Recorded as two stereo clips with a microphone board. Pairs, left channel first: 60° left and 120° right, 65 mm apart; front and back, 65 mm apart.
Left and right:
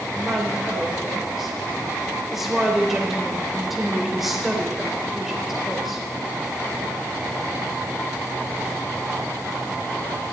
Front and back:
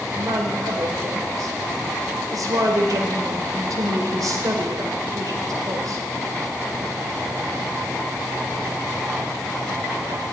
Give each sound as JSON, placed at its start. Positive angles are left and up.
{"t": 0.1, "sound": "a woman speaking", "azimuth_deg": 150, "distance_m": 3.5}